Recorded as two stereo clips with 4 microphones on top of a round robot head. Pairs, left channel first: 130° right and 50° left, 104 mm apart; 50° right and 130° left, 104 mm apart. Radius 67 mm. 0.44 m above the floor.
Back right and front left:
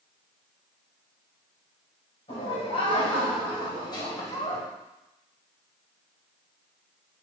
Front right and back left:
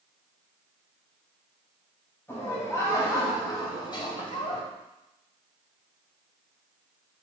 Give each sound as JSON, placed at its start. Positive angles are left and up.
{"t": 2.3, "sound": "laughter", "azimuth_deg": -115, "distance_m": 3.5}